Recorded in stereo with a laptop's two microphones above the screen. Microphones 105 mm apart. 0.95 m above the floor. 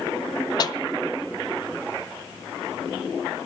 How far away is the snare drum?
About 0.5 m.